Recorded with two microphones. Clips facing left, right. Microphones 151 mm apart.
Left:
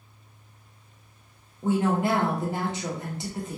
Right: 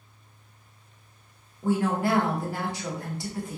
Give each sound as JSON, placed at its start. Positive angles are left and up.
{"t": 1.6, "sound": "a woman speaking", "side_deg": 20, "distance_m": 0.7}